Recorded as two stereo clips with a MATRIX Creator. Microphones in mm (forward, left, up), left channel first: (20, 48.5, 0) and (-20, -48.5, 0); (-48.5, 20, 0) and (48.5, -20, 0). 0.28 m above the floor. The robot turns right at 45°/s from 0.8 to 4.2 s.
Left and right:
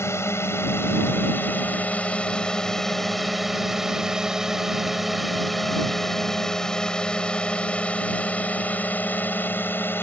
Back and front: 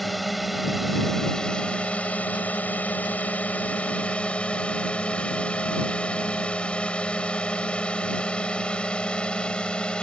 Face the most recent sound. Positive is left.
turn(degrees=95)